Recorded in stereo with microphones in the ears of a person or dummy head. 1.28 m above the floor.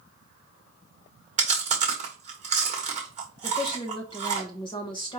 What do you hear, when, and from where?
1.4 s chewing: 30° right (ahead or behind), 1.3 m
3.4 s a woman speaking: 30° left (ahead or behind), 1.2 m